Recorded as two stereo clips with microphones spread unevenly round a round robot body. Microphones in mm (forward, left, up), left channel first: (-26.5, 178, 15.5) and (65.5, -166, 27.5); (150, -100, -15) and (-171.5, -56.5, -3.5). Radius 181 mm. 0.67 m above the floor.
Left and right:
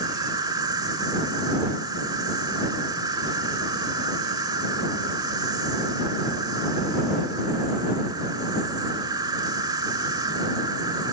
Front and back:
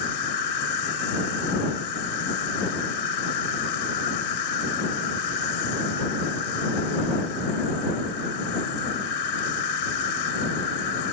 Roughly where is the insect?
Ahead.